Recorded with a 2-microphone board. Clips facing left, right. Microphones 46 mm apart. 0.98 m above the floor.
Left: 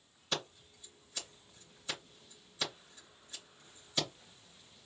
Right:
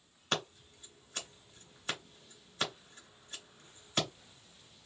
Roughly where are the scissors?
Right.